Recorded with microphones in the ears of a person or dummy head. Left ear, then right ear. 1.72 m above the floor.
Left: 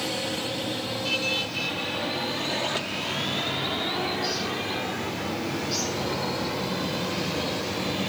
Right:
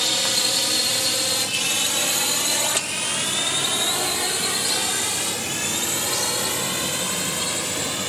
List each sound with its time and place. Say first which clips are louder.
0.0 s a drone: right 8 dB; 55° right (ahead or behind)